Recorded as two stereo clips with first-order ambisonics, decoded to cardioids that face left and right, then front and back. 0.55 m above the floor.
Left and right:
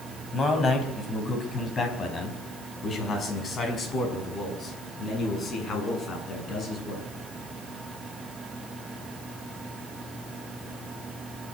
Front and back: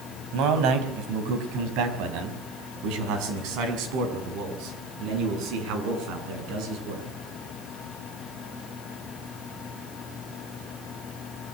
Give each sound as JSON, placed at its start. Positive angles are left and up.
{"t": 0.3, "sound": "a man speaking", "azimuth_deg": 155, "distance_m": 4.0}